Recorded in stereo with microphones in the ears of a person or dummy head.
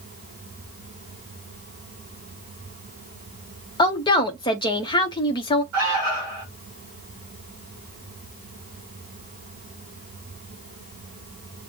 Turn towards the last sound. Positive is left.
turn(degrees=-15)  # may be behind; listen again after turning